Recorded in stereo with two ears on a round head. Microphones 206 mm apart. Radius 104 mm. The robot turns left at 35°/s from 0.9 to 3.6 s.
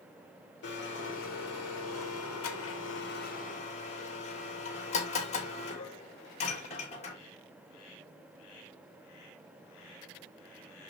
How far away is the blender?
About 2.5 m.